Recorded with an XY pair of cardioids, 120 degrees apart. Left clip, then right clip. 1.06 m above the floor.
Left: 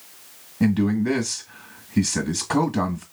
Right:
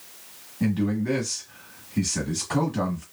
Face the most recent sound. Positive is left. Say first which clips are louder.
# left 4 dB
turn(degrees=50)